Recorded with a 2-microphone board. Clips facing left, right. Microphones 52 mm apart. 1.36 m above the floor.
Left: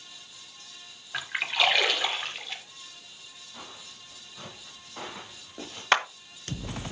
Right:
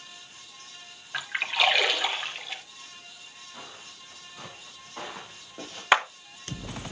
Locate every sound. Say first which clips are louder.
1.1 s a splash: right 1 dB; 5° right (ahead or behind), 1.6 m
3.5 s footsteps: even; 10° right (ahead or behind), 5 m; by 5.8 s 10° left (ahead or behind), 5 m
5.9 s a clap: right 2 dB; 10° right (ahead or behind), 1.0 m